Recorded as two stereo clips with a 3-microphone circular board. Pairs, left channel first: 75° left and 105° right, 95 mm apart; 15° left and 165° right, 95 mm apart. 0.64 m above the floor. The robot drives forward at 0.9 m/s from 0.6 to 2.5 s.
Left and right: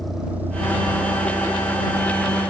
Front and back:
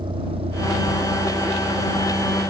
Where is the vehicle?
165° left; by 2.5 s 115° right.